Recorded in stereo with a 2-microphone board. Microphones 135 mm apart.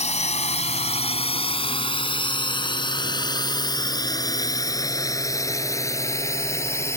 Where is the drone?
55° left (ahead or behind); by 7.0 s 20° left (ahead or behind).